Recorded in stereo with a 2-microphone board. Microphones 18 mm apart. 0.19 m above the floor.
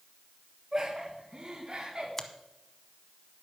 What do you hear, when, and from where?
0.7 s laughter: 25° right (ahead or behind), 1.8 m; by 2.1 s 50° right (ahead or behind), 2.0 m
2.2 s a finger snap: 20° left (ahead or behind), 1.0 m